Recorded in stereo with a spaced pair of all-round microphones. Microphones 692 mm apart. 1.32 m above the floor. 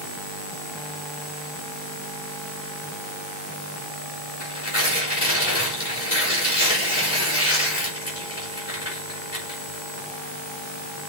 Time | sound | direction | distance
4.4 | tearing paper | 80° left | 4 m